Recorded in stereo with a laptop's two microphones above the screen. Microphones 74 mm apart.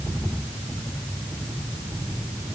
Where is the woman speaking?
I don't hear a woman speaking.